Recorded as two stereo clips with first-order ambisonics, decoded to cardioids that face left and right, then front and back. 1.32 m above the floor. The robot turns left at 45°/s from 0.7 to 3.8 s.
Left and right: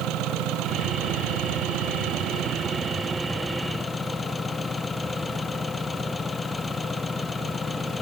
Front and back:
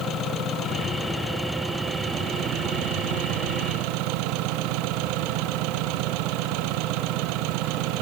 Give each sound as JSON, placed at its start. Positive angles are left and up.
{"t": 0.0, "sound": "an engine running", "azimuth_deg": -55}